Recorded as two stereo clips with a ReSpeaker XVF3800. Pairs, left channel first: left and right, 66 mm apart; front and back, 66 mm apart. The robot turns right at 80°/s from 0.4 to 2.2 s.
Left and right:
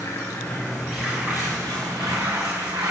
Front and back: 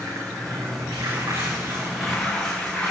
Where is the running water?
135° left, 6 m; by 2.9 s 80° right, 6 m.